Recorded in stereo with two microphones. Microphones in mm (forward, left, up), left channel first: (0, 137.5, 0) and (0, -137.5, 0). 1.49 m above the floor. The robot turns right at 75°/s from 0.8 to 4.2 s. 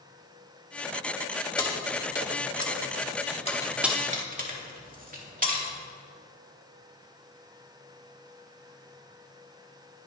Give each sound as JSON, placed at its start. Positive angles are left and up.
{"t": 1.6, "sound": "keys jangling", "side_deg": 15, "distance_m": 2.0}